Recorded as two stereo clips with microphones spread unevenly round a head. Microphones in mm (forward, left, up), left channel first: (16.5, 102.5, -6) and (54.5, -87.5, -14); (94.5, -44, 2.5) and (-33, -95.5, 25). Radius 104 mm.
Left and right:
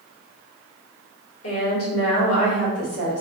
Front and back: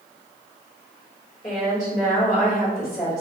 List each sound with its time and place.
1.4 s a woman speaking: 100° left, 2.0 m